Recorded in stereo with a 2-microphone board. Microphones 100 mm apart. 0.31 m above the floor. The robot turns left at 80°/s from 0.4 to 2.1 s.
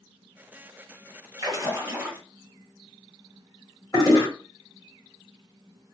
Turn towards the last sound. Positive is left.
turn(degrees=30)  # may be behind; listen again after turning